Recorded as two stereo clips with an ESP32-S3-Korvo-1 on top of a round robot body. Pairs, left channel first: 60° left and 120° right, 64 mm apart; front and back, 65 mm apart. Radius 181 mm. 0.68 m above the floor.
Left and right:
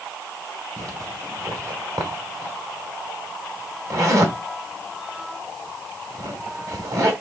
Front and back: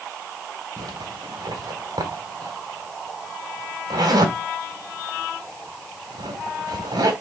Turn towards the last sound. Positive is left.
turn(degrees=-165)